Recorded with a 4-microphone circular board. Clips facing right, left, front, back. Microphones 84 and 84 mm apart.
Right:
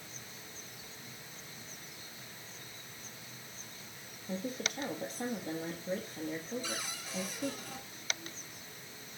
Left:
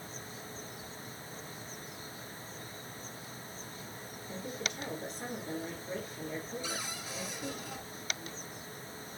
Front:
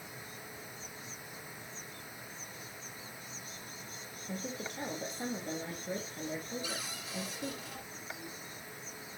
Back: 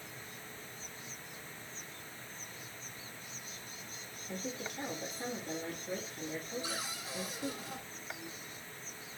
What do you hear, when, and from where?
4.3 s a woman speaking: 55° right, 3 m
6.6 s a cupboard door: 170° left, 1.7 m